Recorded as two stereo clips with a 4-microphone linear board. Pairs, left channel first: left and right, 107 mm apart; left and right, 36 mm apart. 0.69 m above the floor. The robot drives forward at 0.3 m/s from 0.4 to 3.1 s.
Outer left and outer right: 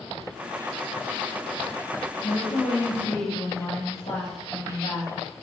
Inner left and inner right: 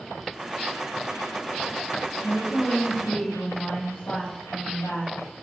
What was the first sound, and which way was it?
A woman speaking, 75° left (ahead or behind).